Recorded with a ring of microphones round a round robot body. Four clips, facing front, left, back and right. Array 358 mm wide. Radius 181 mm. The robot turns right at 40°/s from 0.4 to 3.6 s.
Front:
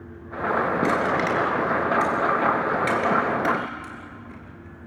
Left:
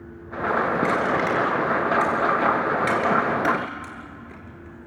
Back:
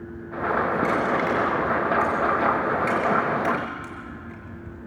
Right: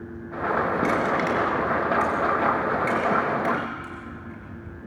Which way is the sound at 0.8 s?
40° right.